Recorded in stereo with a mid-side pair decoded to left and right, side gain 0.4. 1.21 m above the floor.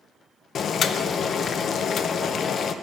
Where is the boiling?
60° left, 0.5 m.